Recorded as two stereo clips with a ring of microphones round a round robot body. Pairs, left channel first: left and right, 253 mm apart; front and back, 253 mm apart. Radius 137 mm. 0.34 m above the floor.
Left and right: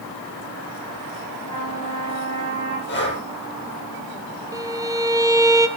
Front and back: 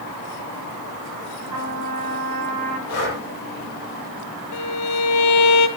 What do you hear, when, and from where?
1.5 s a trumpet: 165° left, 8.5 m
2.9 s breathing: 45° left, 8 m
4.5 s a violin: 15° right, 1.6 m